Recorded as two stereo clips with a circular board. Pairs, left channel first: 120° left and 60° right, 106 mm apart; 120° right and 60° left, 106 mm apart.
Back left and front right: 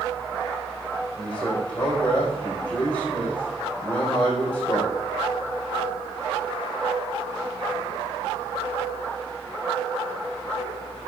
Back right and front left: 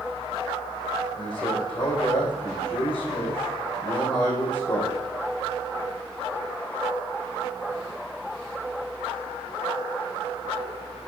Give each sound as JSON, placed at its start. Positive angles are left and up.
{"t": 1.2, "sound": "a man speaking", "azimuth_deg": -165, "distance_m": 5.5}